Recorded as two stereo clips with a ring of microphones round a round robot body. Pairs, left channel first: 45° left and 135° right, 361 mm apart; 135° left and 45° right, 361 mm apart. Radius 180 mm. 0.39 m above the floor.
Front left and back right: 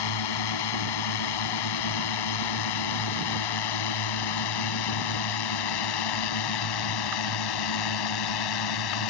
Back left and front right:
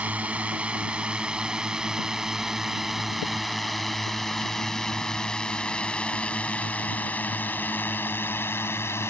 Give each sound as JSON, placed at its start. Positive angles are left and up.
{"t": 0.0, "sound": "a drone", "azimuth_deg": 40}